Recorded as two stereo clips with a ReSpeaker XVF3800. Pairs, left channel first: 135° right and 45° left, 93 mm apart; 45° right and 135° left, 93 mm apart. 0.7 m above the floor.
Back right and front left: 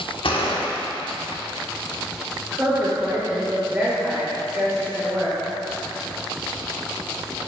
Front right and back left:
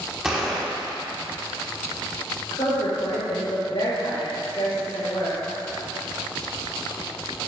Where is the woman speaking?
30° right, 1.9 m.